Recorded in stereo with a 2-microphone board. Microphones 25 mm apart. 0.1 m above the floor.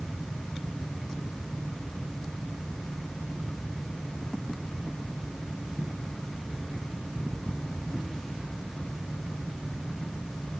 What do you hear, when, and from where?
Only background noise.